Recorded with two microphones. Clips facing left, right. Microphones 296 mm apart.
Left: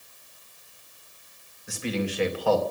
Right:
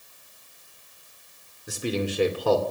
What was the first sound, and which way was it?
A man speaking, 45° right (ahead or behind).